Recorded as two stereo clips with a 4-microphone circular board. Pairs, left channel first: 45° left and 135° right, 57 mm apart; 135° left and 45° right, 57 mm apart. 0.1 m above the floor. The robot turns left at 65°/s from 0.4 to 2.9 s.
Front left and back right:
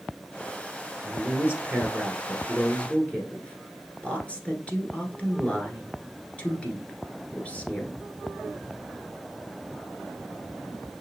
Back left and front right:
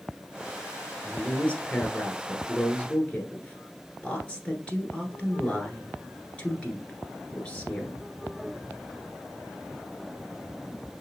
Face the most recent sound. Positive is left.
turn(degrees=85)